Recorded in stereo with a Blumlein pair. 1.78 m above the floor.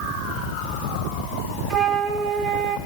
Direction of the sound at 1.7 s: 20° right.